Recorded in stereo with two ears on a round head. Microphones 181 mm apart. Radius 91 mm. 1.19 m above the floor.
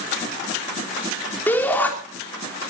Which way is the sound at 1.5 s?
10° left (ahead or behind).